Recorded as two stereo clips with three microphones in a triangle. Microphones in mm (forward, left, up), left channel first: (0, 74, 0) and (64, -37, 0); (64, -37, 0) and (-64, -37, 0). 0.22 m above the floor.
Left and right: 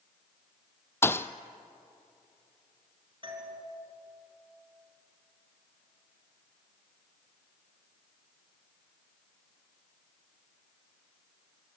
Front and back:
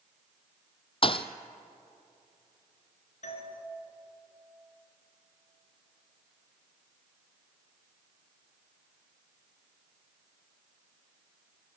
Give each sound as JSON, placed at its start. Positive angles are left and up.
{"t": 1.0, "sound": "a thud", "azimuth_deg": 45, "distance_m": 0.9}
{"t": 3.2, "sound": "a doorbell", "azimuth_deg": -10, "distance_m": 4.0}